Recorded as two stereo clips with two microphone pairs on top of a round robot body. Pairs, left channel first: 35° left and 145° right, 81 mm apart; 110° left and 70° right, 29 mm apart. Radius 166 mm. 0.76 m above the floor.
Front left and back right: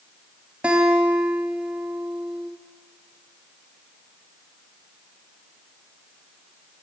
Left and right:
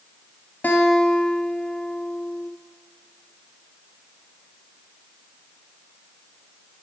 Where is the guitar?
140° left, 1.0 m.